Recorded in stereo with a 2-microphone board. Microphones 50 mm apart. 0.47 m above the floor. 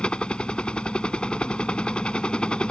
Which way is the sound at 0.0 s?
20° left (ahead or behind).